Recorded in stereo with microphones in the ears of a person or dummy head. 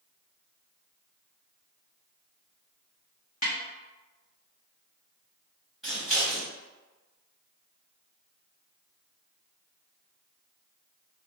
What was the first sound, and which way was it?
A snare drum, 40° left (ahead or behind).